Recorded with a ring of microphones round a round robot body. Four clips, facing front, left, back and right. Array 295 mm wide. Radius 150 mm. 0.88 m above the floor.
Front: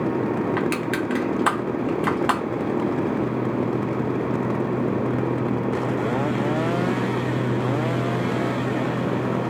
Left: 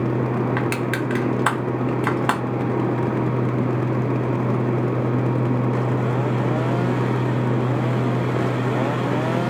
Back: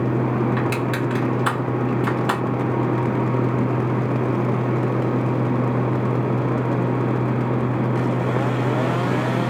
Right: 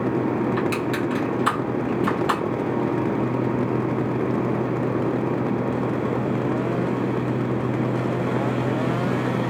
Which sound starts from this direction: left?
Crushing, at 0.6 s.